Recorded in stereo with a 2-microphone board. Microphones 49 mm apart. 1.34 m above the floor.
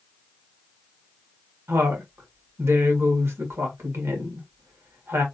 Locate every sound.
1.7 s a woman speaking: 60° right (ahead or behind), 1.7 m